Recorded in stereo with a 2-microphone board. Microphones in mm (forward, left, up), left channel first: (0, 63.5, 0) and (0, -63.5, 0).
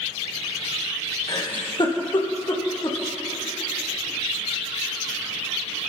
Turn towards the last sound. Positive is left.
turn(degrees=35)  # may be behind; listen again after turning